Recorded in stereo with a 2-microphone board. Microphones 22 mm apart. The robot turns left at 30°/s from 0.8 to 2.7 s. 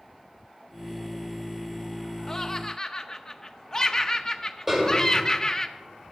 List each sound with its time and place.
2.3 s laughter: 20° left (ahead or behind), 0.6 m
4.7 s a snare drum: 15° right (ahead or behind), 3 m